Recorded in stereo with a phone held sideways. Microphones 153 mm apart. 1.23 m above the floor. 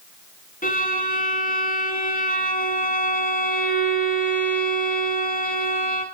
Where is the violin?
65° left (ahead or behind), 4.5 m.